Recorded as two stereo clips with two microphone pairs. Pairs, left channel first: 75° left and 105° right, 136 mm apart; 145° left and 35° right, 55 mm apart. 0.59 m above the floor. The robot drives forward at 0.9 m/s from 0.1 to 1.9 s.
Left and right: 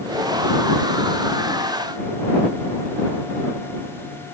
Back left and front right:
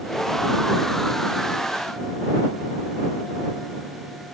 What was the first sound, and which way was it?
Only background noise.